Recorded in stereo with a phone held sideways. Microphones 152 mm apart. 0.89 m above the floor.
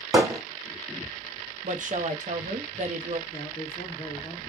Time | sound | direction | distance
0.1 | hammering | 15° right (ahead or behind) | 2.5 m
1.6 | a woman speaking | 55° right (ahead or behind) | 1.1 m
3.3 | a man speaking | 35° left (ahead or behind) | 1.3 m